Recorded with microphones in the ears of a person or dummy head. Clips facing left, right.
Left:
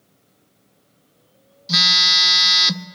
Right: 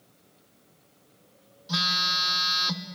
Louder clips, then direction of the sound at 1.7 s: Left 5 dB; 30° left (ahead or behind).